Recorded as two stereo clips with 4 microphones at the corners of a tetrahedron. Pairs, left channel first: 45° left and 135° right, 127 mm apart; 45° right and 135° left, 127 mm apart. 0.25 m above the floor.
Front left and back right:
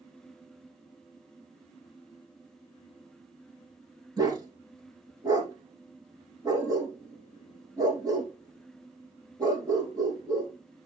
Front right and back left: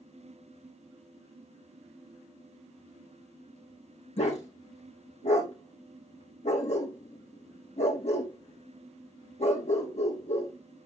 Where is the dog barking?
75° right, 4 m.